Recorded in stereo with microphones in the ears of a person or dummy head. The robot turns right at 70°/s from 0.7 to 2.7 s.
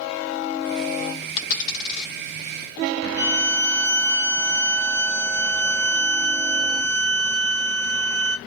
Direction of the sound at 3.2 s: 15° right (ahead or behind).